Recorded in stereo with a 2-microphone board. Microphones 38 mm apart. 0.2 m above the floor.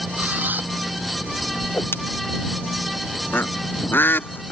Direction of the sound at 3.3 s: 65° left (ahead or behind).